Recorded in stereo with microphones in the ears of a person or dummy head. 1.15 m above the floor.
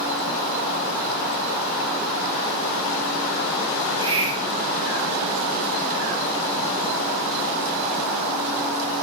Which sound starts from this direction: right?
A hiss, at 3.8 s.